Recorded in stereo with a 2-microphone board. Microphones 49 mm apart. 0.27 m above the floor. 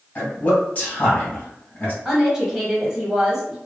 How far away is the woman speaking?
About 1.2 m.